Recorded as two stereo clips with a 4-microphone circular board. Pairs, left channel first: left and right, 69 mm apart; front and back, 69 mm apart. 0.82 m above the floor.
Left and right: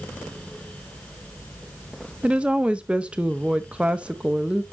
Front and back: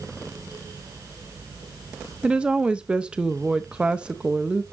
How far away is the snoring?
I don't hear snoring.